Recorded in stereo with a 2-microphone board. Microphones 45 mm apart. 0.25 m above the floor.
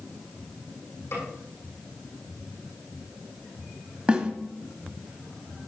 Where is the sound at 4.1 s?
25° right (ahead or behind), 1.4 m.